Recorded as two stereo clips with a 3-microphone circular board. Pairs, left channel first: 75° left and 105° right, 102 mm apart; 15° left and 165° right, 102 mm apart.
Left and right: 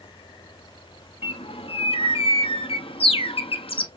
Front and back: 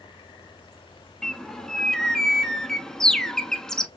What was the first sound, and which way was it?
A bird, 100° left.